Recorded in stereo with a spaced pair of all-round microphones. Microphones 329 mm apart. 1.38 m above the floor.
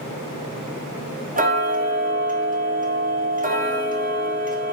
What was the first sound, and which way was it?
Ticking, 25° right (ahead or behind).